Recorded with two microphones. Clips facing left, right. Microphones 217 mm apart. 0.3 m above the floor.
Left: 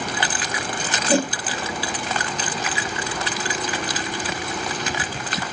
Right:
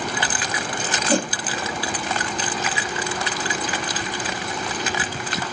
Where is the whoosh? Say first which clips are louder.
Left 2 dB; 10° left (ahead or behind), 1.1 m.